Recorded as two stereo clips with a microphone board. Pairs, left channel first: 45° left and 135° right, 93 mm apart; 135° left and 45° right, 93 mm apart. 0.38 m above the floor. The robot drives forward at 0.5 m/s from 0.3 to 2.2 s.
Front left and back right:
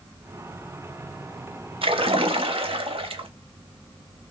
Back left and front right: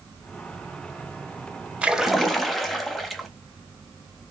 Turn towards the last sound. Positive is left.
turn(degrees=-135)